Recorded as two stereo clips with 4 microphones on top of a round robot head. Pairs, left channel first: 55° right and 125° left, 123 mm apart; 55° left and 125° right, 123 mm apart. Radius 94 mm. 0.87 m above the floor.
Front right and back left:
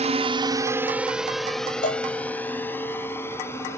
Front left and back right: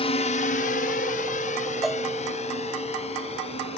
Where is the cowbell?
35° right.